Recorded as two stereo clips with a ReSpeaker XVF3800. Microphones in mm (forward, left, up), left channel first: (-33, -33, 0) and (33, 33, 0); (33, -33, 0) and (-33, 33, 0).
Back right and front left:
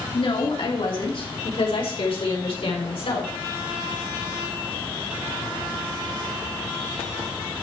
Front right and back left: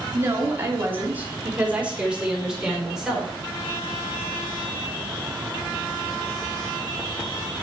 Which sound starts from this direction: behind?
A woman speaking, at 0.1 s.